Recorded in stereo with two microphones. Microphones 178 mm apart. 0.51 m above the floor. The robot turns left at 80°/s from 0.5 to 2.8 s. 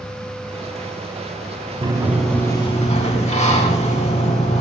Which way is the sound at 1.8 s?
145° right.